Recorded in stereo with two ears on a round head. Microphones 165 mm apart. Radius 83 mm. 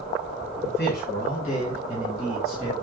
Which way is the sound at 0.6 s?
65° left (ahead or behind).